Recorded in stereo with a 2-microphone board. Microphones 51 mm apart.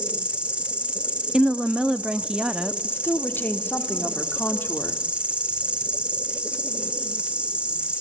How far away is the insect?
About 2 m.